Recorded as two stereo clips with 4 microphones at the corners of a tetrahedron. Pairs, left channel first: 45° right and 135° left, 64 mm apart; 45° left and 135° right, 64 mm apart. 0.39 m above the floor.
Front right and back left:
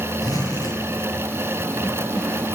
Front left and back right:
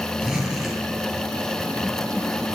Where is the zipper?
55° right, 9 m.